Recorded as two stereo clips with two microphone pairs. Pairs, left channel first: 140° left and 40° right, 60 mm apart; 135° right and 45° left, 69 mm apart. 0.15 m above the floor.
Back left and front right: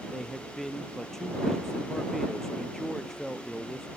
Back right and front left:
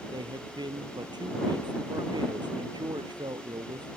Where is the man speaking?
55° left.